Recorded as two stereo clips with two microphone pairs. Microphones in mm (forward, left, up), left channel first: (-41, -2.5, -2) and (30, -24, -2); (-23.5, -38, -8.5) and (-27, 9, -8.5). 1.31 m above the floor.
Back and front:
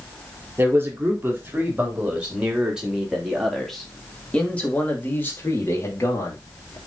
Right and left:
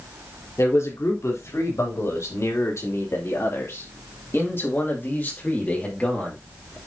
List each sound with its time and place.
0.6 s a man speaking: 80° right, 4 m; by 6.8 s 155° right, 3 m